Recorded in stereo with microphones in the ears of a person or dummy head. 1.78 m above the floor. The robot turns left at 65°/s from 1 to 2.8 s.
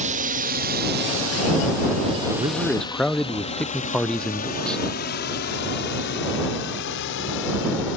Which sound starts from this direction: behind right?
A man speaking, at 2.3 s.